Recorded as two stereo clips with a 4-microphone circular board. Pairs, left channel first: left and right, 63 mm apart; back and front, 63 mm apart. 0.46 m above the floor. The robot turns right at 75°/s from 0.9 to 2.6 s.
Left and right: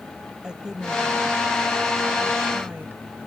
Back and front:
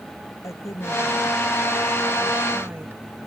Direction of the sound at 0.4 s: 170° right.